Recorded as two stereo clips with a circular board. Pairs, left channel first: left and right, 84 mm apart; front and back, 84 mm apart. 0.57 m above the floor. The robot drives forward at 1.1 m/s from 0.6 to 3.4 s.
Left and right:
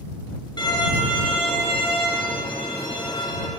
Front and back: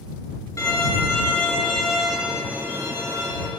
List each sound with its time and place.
0.6 s a violin: 50° left, 2.5 m; by 3.5 s 130° left, 2.5 m